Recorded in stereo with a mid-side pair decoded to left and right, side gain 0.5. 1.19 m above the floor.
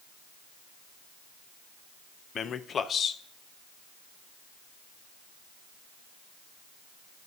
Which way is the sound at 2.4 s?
50° left.